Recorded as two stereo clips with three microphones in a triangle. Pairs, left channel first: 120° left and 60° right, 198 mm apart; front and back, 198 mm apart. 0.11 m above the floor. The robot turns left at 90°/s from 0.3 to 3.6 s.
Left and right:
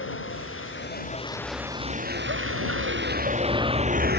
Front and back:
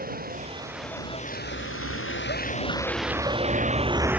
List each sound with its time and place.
0.0 s a vehicle: 135° left; by 4.2 s 95° right